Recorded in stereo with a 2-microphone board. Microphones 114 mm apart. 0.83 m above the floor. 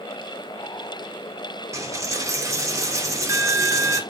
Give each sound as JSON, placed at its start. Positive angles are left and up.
{"t": 1.7, "sound": "a dropped coin", "side_deg": -30, "distance_m": 0.5}